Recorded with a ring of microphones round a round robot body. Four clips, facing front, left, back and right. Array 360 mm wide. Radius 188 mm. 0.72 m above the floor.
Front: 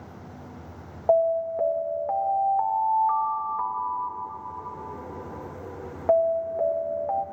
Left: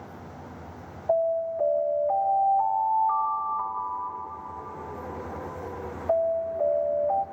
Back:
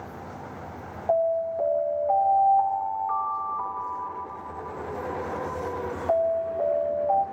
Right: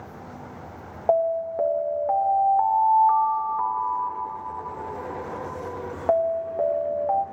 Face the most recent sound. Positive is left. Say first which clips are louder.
# right 2 dB, front 2 dB
turn(degrees=-70)